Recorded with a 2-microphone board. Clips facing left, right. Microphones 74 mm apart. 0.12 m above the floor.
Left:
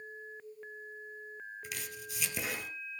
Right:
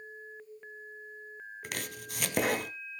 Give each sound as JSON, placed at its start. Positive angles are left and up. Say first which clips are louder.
{"t": 1.6, "sound": "chopping", "louder": "right 4 dB", "side_deg": -60, "distance_m": 1.1}